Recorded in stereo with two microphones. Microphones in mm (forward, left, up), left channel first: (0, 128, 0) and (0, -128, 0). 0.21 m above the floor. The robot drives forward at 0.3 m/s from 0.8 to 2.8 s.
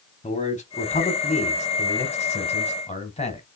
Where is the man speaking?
30° left (ahead or behind), 1.2 m; by 3.4 s 25° left (ahead or behind), 1.3 m.